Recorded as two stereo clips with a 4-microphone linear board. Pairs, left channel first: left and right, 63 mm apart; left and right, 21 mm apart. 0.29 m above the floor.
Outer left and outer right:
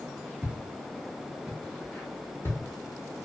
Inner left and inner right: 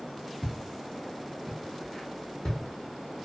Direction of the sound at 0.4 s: 20° right (ahead or behind).